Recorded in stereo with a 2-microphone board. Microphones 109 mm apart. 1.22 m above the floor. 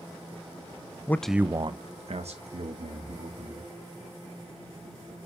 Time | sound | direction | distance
1.1 | a man speaking | 20° left (ahead or behind) | 0.5 m